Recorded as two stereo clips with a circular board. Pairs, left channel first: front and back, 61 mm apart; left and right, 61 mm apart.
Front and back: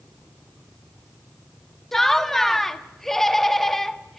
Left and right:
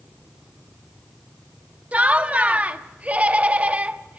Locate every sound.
1.9 s laughter: 75° right, 1.1 m